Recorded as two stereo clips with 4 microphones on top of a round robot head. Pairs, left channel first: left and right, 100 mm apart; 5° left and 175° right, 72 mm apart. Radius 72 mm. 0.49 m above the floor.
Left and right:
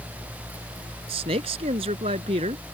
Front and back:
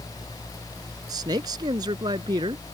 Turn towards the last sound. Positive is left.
turn(degrees=-130)